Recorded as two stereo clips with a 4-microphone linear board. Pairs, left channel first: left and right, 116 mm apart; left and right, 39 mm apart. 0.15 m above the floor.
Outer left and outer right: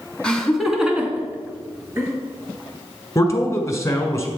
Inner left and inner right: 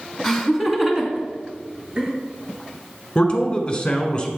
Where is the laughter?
10° left (ahead or behind), 1.3 m; by 2.1 s 25° right (ahead or behind), 2.5 m.